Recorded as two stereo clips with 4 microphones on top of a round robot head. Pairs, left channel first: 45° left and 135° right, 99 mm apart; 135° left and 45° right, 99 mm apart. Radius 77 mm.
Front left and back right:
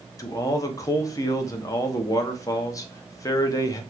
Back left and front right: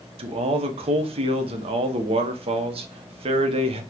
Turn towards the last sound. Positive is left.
turn(degrees=-15)